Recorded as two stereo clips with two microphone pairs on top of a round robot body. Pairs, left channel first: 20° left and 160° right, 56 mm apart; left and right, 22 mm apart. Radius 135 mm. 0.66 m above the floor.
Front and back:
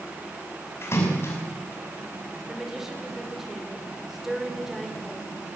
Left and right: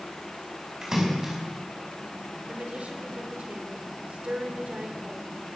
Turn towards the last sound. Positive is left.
turn(degrees=-80)